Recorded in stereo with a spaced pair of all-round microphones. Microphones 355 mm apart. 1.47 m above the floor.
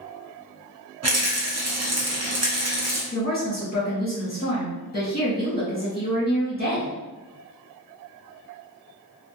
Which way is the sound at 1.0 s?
45° right (ahead or behind).